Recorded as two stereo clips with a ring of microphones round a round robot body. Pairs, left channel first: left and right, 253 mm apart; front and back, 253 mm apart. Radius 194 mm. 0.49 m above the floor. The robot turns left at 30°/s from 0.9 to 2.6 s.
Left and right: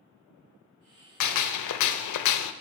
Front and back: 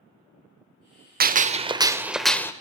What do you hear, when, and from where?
1.2 s a gunshot: 120° left, 0.6 m; by 2.5 s 80° left, 0.6 m